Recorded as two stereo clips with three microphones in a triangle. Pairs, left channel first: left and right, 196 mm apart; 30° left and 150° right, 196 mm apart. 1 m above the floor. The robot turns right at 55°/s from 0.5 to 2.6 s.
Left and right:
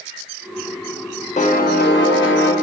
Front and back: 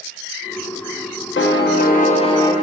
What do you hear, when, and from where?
1.4 s a piano: 40° left, 0.8 m; by 2.5 s 105° left, 0.8 m